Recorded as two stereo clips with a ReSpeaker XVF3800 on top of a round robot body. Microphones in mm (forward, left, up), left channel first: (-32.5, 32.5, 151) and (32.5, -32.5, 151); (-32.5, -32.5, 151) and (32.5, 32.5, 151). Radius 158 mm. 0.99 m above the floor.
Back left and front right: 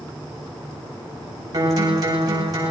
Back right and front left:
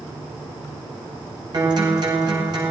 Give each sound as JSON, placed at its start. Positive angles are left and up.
{"t": 1.5, "sound": "a guitar", "azimuth_deg": 5, "distance_m": 8.0}